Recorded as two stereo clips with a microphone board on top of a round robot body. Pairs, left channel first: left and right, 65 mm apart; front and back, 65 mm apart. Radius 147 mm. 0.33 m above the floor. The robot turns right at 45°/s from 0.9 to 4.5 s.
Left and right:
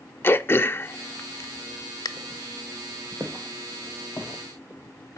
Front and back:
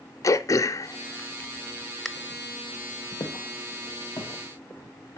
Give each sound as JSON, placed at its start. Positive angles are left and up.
{"t": 0.2, "sound": "throat clearing", "azimuth_deg": 35, "distance_m": 0.6}
{"t": 3.2, "sound": "footsteps", "azimuth_deg": -25, "distance_m": 1.8}